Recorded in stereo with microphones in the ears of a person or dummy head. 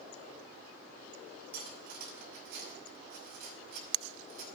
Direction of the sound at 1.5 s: 50° right (ahead or behind).